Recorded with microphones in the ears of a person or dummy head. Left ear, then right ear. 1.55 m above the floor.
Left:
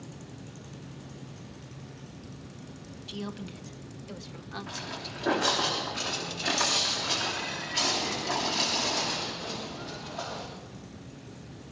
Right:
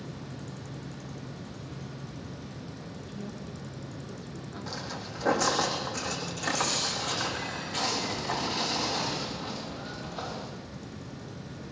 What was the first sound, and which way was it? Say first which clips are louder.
A woman speaking: left 7 dB; 40° left (ahead or behind).